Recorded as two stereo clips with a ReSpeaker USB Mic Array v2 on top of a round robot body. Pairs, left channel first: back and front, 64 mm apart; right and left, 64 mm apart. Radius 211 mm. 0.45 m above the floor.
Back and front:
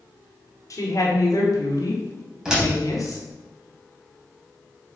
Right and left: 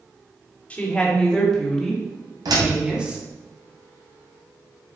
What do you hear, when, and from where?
0.7 s a woman speaking: 160° right, 2.5 m; by 3.2 s 160° left, 2.5 m
2.5 s a door slam: 80° left, 3 m